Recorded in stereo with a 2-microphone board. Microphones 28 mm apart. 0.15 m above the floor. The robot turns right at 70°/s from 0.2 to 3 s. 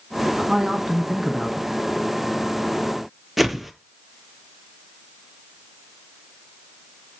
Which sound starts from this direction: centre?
A whoosh, at 3.4 s.